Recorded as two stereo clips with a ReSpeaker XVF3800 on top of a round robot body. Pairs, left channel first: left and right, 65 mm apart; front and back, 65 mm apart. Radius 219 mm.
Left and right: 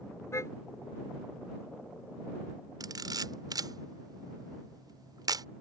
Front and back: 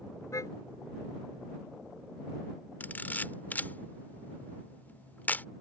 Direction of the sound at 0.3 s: 40° left.